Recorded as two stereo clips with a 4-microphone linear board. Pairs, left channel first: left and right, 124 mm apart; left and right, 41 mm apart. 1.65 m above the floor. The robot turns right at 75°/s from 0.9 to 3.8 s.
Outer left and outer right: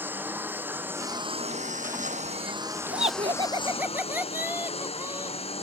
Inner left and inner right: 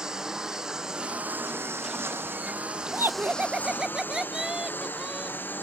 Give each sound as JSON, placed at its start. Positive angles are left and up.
{"t": 0.0, "sound": "a lawn mower", "azimuth_deg": -165}
{"t": 2.9, "sound": "laughter", "azimuth_deg": -85}